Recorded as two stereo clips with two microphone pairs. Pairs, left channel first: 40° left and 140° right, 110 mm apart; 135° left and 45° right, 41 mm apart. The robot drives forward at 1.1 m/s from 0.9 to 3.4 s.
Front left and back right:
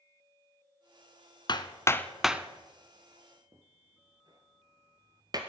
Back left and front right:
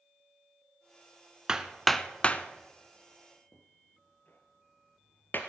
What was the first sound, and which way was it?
Hammering, 25° left.